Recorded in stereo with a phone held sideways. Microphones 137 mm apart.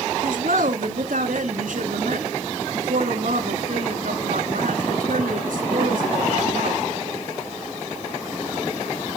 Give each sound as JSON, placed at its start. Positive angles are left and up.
{"t": 0.2, "sound": "a woman speaking", "side_deg": -80, "distance_m": 2.5}